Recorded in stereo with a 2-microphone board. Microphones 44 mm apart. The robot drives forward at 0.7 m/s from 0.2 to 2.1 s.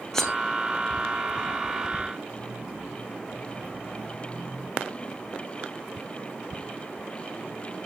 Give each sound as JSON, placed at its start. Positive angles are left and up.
{"t": 0.1, "sound": "cutlery clinking", "side_deg": 10, "distance_m": 2.5}